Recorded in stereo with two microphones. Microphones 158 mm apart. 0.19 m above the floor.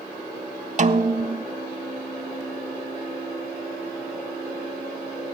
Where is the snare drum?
50° right (ahead or behind), 0.5 m.